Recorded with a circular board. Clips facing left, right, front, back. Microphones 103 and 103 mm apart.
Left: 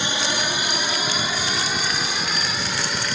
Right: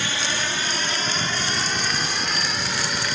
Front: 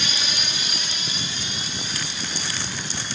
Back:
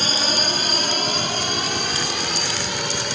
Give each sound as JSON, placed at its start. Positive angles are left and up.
{"t": 0.0, "sound": "a drone", "azimuth_deg": 155}